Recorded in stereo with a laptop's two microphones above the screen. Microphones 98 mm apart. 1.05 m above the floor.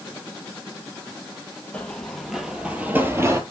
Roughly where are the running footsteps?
Centre.